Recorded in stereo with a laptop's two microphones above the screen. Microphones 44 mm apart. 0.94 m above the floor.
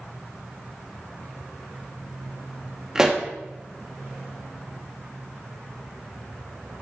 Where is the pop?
15° right (ahead or behind), 0.8 m.